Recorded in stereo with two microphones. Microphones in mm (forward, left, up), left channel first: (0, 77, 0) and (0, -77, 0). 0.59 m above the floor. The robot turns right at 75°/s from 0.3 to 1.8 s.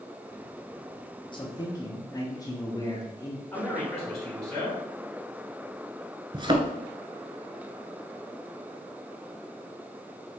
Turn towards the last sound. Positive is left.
turn(degrees=-30)  # may be behind; listen again after turning